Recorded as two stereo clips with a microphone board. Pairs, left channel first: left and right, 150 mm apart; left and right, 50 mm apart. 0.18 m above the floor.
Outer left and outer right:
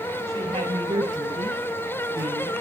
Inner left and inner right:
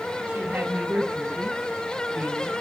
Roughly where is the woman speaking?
Right.